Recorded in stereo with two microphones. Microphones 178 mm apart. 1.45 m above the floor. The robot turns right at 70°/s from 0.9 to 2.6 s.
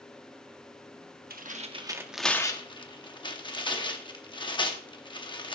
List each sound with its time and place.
1.3 s tearing paper: 65° right (ahead or behind), 1.0 m; by 5.5 s 30° left (ahead or behind), 1.0 m